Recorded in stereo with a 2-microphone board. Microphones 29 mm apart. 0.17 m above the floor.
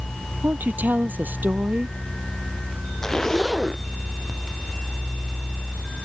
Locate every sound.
0.4 s a woman speaking: 75° right (ahead or behind)
3.0 s a zipper: 15° left (ahead or behind)